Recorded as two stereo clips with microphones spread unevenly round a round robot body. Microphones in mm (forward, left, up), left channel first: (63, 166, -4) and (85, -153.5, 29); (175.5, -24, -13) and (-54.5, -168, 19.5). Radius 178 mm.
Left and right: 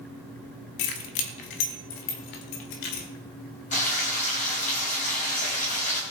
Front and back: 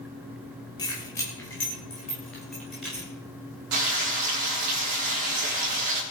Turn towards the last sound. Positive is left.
turn(degrees=165)